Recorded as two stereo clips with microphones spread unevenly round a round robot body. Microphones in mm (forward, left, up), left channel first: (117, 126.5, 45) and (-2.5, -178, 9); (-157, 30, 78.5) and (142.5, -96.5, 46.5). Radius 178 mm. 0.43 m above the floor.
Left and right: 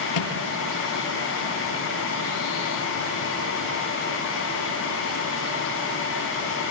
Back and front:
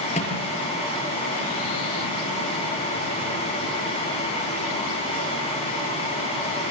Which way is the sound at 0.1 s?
85° left.